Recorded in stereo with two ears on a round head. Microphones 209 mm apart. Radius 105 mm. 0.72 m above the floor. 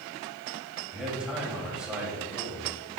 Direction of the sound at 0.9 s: 5° right (ahead or behind).